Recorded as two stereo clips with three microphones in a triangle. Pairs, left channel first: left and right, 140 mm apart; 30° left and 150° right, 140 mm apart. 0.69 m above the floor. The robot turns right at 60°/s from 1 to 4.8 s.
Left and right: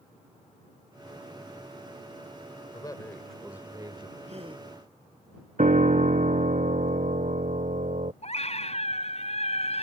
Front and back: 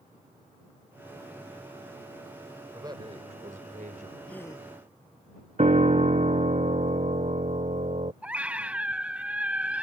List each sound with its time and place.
2.7 s a man speaking: 145° left; by 4.2 s 130° right
4.3 s a gasp: 55° right; by 4.7 s 30° right
5.6 s a piano: 115° right
8.2 s a scream: 130° left